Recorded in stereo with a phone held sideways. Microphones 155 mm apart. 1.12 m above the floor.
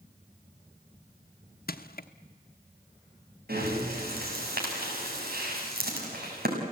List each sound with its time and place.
1.7 s crushing: 75° left (ahead or behind), 1.0 m
3.5 s breathing: 85° right, 6 m